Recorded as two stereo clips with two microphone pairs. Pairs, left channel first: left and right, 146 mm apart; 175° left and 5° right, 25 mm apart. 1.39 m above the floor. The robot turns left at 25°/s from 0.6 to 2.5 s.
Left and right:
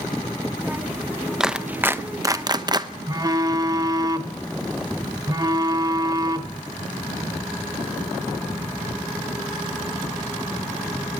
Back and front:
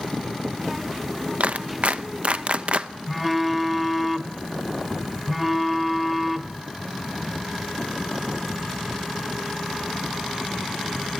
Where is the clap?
Straight ahead, 0.8 m; by 2.9 s 30° right, 0.8 m.